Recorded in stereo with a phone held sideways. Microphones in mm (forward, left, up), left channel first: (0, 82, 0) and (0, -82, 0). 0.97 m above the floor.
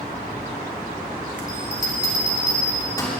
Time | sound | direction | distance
1.5 | a bell | 20° left (ahead or behind) | 3 m